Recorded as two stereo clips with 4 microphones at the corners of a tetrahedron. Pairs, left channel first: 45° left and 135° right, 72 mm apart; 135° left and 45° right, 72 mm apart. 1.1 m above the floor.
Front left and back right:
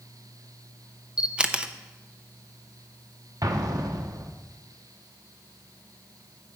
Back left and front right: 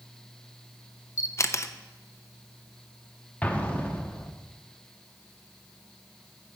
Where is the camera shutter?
150° left, 0.6 m.